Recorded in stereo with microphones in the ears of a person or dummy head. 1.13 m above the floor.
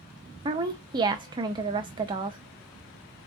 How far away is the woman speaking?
About 0.5 m.